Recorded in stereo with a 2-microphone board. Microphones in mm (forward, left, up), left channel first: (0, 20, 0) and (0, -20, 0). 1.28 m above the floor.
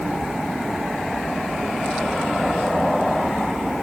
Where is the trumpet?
I don't hear a trumpet.